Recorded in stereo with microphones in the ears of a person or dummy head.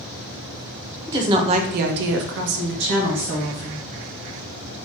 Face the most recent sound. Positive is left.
turn(degrees=-45)  # may be behind; listen again after turning